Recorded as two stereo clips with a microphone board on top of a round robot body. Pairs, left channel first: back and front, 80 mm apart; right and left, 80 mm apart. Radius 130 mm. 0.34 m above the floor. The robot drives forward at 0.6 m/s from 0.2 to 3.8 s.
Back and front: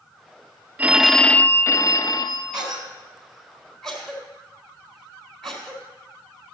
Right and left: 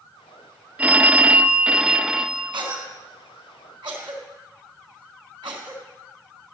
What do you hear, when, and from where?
0.8 s a phone ringing: 40° left, 0.6 m; by 2.9 s 170° left, 1.2 m
2.5 s a cough: 80° left, 4 m; by 5.8 s 95° left, 4 m